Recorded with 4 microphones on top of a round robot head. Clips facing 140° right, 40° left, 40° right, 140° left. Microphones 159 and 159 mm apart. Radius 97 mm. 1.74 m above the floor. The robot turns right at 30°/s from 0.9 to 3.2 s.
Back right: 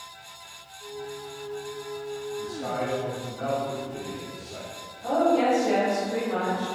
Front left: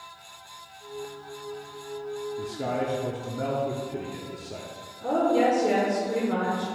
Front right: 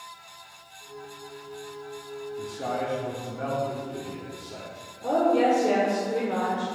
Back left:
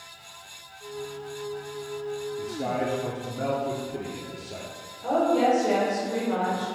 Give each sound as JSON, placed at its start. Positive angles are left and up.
{"t": 2.4, "sound": "a man speaking", "azimuth_deg": 55, "distance_m": 0.7}
{"t": 5.0, "sound": "a woman speaking", "azimuth_deg": 25, "distance_m": 1.3}